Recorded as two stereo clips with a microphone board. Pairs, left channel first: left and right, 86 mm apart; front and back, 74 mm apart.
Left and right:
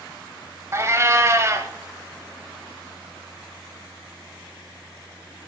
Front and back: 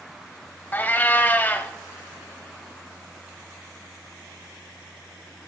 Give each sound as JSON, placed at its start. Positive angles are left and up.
{"t": 0.7, "sound": "a cat meowing", "azimuth_deg": -55, "distance_m": 0.6}